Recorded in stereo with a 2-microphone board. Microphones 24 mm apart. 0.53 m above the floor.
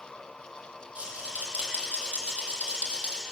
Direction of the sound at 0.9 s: 60° right (ahead or behind).